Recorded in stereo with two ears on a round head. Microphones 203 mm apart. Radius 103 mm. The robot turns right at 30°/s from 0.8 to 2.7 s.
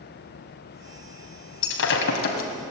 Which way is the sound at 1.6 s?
65° left (ahead or behind).